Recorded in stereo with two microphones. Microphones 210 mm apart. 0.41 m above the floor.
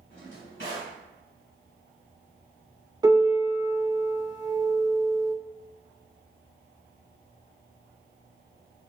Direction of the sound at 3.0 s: 20° right (ahead or behind).